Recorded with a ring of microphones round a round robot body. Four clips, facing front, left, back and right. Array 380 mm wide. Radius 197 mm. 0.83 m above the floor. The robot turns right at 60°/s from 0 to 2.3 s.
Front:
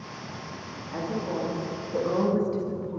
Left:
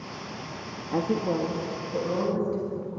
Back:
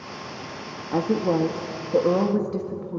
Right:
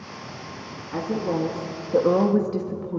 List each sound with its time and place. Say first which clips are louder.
0.9 s a woman speaking: even, back 8 dB; 160° left, 1.7 m; by 3.0 s 115° right, 1.7 m